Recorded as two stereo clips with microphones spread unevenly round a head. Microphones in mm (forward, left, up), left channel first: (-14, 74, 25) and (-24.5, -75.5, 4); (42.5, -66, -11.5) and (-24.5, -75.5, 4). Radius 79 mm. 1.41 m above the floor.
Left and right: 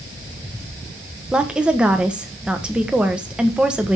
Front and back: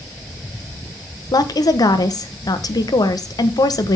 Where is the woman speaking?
10° right, 1.2 m.